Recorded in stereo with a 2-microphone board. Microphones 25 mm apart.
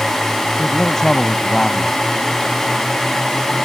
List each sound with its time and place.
0.6 s a man speaking: 20° left (ahead or behind)